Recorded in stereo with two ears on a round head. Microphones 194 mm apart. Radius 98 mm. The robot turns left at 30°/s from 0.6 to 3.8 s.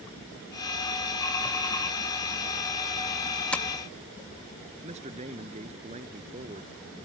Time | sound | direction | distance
3.5 | tapping | 5° left (ahead or behind) | ?
4.8 | a man speaking | 30° right (ahead or behind) | ?